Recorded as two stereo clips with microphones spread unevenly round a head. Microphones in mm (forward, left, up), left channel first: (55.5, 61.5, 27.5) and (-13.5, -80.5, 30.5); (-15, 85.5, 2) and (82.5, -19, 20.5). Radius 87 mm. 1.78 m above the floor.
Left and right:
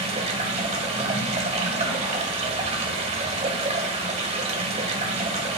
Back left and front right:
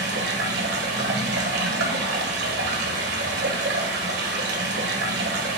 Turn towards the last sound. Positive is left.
turn(degrees=-65)